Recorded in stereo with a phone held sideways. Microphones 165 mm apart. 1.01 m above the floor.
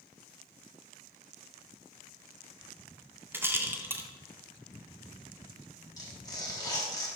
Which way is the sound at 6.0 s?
20° left (ahead or behind).